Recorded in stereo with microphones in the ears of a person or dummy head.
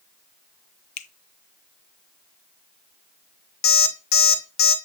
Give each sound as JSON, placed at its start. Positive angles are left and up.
{"t": 1.0, "sound": "a finger snap", "side_deg": 45, "distance_m": 0.7}
{"t": 3.6, "sound": "an alarm clock", "side_deg": 60, "distance_m": 1.6}